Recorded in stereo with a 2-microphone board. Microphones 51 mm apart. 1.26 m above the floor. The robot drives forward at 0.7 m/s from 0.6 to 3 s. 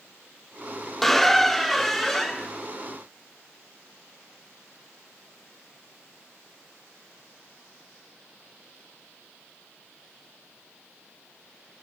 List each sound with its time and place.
1.0 s a squeak: 5° left (ahead or behind), 0.7 m; by 2.5 s centre (ahead or behind), 1.7 m